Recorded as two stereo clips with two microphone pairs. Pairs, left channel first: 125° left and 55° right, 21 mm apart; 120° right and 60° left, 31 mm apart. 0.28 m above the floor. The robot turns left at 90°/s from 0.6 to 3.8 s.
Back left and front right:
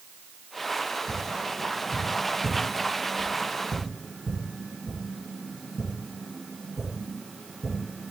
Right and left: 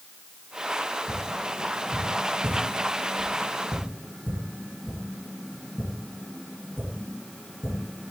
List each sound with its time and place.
1.1 s tapping: straight behind, 3 m; by 8.1 s 65° right, 3 m